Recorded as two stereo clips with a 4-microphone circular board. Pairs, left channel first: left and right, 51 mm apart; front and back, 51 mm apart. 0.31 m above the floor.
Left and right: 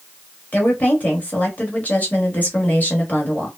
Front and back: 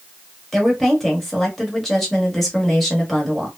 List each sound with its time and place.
0.5 s a woman speaking: 85° left, 1.0 m